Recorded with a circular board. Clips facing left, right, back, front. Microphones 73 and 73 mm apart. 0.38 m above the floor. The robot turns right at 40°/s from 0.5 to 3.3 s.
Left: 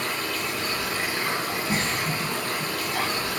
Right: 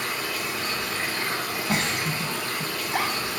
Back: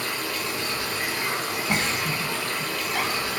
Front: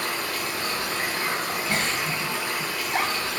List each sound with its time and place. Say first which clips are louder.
0.0 s running water: left 1 dB, front 1 dB; 5° right, 0.9 m; by 3.4 s 105° left, 0.9 m
1.7 s a giggle: right 2 dB, back 2 dB; 110° right, 0.6 m; by 3.1 s 50° right, 0.6 m